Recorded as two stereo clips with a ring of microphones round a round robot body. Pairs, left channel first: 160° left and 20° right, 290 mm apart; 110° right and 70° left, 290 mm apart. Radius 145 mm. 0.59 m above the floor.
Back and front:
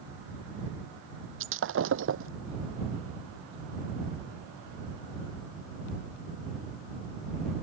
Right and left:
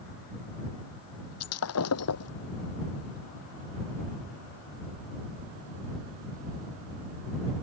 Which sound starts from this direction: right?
Breaking glass, at 1.4 s.